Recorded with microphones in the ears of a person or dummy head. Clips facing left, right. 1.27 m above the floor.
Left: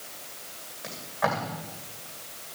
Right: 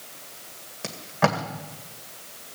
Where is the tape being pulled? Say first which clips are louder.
Right 5 dB; 50° right (ahead or behind), 2 m.